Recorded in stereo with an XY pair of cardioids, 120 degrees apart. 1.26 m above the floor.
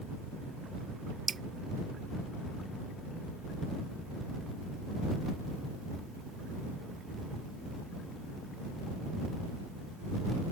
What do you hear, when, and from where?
1.3 s dripping: 30° right